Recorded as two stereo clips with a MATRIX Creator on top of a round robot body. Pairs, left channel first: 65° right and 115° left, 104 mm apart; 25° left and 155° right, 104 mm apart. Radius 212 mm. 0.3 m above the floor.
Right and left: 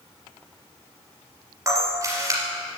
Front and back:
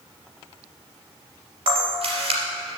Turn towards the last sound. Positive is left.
turn(degrees=170)